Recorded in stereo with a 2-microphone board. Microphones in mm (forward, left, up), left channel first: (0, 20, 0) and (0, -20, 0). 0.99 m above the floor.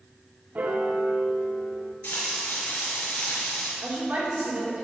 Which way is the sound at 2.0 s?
70° left (ahead or behind).